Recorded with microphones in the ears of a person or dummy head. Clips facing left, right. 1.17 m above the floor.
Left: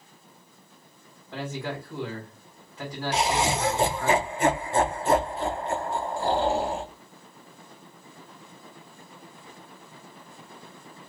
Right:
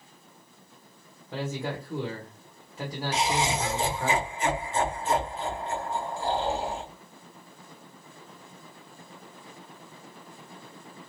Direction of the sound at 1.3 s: 20° right (ahead or behind).